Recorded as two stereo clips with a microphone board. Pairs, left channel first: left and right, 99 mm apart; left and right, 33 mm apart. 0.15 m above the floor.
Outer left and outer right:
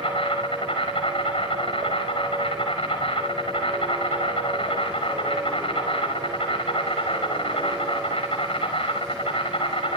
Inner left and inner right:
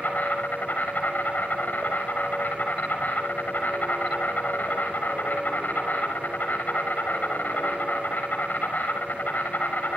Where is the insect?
60° left (ahead or behind), 5.5 m.